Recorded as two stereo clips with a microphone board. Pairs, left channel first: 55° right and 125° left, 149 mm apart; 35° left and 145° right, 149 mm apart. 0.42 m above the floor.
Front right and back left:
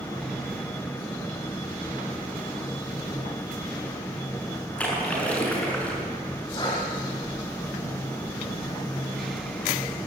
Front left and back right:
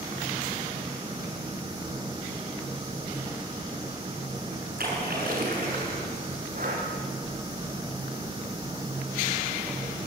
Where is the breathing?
120° right, 5.5 m.